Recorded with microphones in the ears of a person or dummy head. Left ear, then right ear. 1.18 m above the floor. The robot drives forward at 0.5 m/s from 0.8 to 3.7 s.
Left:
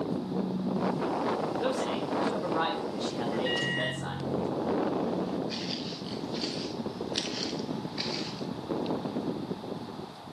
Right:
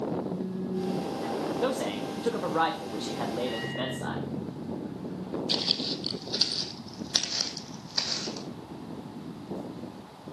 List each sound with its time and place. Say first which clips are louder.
0.1 s a phone buzzing: even; 10° left (ahead or behind), 5 m
1.6 s a man speaking: even; 25° right (ahead or behind), 1.6 m; by 4.2 s 15° right (ahead or behind), 2.5 m
3.5 s a microwave: left 3 dB; 80° left, 3 m; by 5.4 s 75° left (ahead or behind), 3 m
5.5 s footsteps: right 7 dB; 45° right (ahead or behind), 1.9 m; by 8.5 s 55° right (ahead or behind), 3.5 m